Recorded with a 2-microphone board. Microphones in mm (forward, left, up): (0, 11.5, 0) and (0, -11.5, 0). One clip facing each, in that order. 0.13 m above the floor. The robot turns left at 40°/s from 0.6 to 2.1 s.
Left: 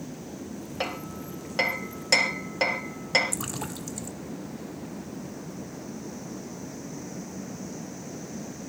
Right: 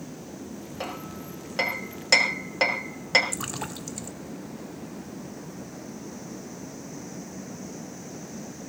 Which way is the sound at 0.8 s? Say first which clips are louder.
Left 3 dB; 30° left (ahead or behind).